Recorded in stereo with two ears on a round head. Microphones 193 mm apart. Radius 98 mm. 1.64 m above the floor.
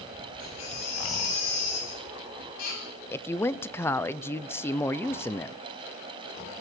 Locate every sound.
0.4 s a baby crying: 85° left, 9 m
3.1 s a woman speaking: 10° left (ahead or behind), 0.7 m